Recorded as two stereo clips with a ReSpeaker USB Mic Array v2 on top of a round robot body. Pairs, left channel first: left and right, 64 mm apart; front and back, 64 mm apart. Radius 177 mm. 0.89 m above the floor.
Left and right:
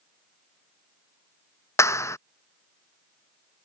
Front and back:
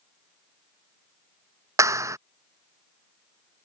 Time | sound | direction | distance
1.8 | a clap | 135° left | ?